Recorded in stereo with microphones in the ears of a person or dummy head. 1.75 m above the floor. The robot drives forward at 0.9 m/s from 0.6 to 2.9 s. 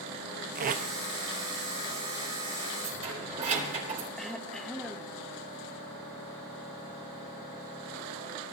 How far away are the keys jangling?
About 4 m.